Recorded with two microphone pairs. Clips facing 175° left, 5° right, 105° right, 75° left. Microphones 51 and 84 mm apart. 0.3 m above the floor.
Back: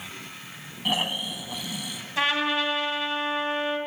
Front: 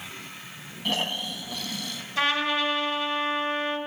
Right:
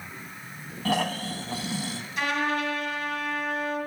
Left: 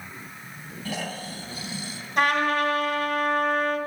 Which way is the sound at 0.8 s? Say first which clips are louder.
Back 1 dB, right 6 dB; 110° right.